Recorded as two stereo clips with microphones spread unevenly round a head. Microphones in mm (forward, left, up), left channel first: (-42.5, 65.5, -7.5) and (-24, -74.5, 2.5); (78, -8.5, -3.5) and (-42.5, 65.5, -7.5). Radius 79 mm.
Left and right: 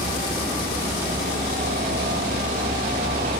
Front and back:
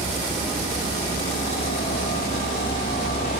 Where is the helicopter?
55° right.